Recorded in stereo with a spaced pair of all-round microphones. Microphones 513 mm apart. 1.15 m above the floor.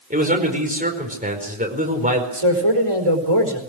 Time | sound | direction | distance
0.1 | a man speaking | 15° right (ahead or behind) | 5 m
2.3 | a man speaking | 75° right (ahead or behind) | 4 m